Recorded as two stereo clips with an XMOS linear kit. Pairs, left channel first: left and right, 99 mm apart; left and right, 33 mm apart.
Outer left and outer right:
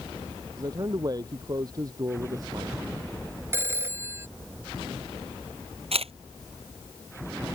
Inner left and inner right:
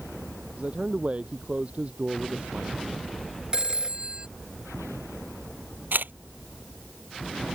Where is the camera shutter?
85° right.